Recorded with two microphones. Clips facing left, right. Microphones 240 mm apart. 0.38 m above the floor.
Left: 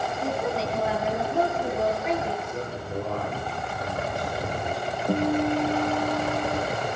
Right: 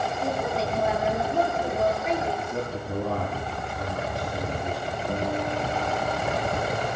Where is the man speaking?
65° right (ahead or behind), 9 m.